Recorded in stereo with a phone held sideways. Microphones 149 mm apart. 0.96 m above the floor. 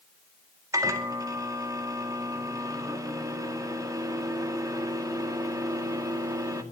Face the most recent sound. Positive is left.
turn(degrees=-20)  # may be behind; listen again after turning